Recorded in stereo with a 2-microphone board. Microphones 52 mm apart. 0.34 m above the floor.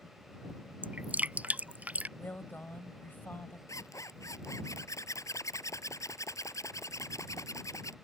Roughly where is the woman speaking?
Left.